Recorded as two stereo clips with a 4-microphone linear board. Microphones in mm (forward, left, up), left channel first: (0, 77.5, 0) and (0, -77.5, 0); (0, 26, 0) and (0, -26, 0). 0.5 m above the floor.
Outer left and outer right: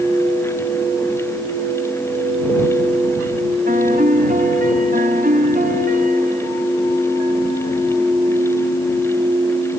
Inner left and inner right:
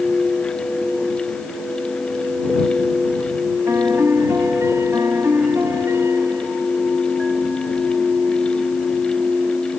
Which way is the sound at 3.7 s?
75° right (ahead or behind).